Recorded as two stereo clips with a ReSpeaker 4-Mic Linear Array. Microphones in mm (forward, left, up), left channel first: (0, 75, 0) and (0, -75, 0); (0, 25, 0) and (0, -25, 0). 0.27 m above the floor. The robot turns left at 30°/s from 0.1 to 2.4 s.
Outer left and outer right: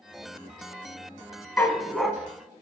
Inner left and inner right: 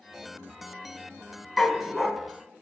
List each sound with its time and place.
1.6 s a dog barking: 15° left (ahead or behind), 0.7 m; by 2.1 s centre (ahead or behind), 0.7 m